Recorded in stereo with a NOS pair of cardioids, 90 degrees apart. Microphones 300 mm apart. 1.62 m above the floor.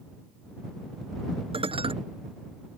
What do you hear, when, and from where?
1.5 s dishes clattering: 20° right